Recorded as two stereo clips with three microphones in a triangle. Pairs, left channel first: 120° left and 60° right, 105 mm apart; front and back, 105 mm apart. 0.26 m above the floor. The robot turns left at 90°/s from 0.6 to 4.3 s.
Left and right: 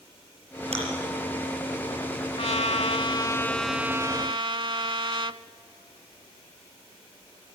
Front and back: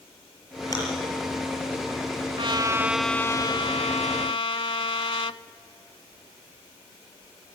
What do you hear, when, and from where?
0.7 s chewing: 55° right, 5.5 m; by 0.8 s 60° right, 5.5 m
2.4 s a trumpet: 150° left, 0.5 m; by 5.4 s 25° right, 0.5 m